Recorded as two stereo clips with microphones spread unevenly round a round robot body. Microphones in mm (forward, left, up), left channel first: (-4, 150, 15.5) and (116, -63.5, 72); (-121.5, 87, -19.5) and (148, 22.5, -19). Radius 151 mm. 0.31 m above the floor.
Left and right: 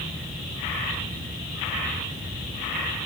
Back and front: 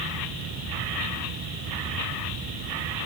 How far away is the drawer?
I don't hear a drawer.